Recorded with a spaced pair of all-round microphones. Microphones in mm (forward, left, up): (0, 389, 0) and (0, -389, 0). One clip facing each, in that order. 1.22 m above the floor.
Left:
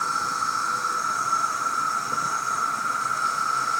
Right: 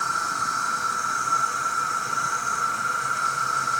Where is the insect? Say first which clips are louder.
Even; 45° right (ahead or behind), 1.4 m.